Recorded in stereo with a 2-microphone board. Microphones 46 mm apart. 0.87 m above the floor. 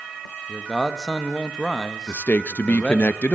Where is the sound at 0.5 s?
Centre (ahead or behind), 1.3 m.